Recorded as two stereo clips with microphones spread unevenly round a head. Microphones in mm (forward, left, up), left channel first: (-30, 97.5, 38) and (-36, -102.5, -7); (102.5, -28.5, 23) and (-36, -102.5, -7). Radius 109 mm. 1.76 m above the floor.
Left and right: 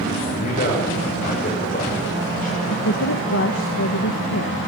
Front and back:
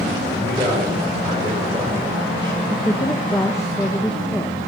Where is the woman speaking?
105° left, 2 m.